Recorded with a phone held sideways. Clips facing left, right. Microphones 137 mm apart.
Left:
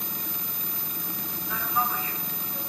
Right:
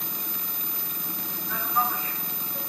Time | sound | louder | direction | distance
1.5 | a man speaking | right 1 dB | 5° left (ahead or behind) | 6 m